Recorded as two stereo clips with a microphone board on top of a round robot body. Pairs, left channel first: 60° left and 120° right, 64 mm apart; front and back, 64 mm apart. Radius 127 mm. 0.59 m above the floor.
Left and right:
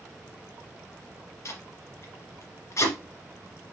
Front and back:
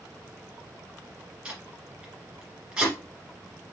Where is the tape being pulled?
100° left, 1.9 m.